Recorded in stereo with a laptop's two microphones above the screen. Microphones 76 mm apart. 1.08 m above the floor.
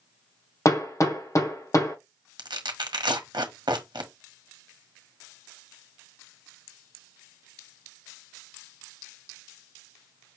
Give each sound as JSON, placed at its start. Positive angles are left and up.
{"t": 0.7, "sound": "hammering", "side_deg": 45, "distance_m": 1.2}
{"t": 2.4, "sound": "tearing paper", "side_deg": -70, "distance_m": 1.0}